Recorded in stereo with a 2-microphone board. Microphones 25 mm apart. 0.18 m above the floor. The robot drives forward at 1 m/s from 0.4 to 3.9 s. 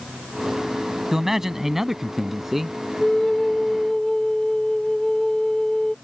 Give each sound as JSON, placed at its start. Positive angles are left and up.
{"t": 1.1, "sound": "a man speaking", "side_deg": -20}
{"t": 3.0, "sound": "a flute", "side_deg": 35}